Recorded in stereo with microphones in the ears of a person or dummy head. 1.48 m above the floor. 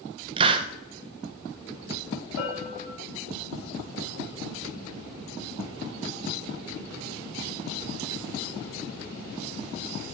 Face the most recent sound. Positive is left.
turn(degrees=80)